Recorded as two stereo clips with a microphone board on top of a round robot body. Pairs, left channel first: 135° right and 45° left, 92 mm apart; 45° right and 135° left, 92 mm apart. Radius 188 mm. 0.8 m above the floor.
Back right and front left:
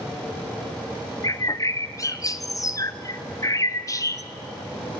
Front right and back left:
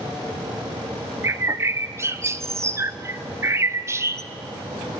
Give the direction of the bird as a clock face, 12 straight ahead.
6 o'clock.